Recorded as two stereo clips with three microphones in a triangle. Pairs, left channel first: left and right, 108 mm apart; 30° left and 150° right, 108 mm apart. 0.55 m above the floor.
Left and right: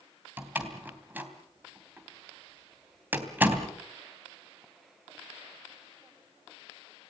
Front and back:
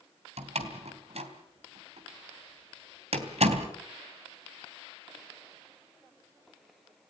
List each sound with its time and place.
0.4 s a door slam: 165° right, 3 m